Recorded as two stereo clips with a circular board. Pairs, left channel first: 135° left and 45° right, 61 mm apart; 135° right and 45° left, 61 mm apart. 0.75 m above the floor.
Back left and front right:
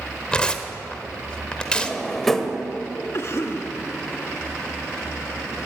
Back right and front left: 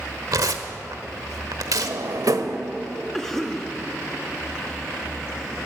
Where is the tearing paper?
60° left, 1.2 m.